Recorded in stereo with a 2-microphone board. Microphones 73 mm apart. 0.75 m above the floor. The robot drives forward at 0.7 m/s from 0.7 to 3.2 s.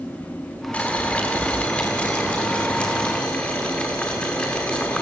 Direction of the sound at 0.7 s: 20° left (ahead or behind).